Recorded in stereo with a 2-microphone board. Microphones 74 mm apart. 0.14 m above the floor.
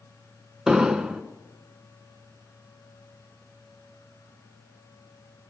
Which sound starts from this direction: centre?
An explosion, at 0.7 s.